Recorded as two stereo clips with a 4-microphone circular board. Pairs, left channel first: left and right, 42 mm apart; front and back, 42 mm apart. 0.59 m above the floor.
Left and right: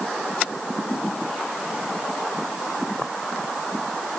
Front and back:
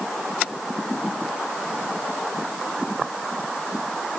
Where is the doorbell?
No doorbell in this recording.